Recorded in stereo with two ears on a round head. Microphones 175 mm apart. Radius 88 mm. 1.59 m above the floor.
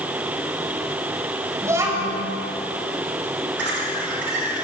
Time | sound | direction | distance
1.6 | a child speaking | 15° right (ahead or behind) | 5.5 m
3.6 | laughter | 70° right (ahead or behind) | 9.5 m